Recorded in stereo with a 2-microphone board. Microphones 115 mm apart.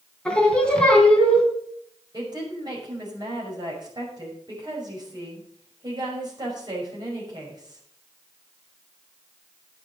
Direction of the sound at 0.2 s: 10° left (ahead or behind).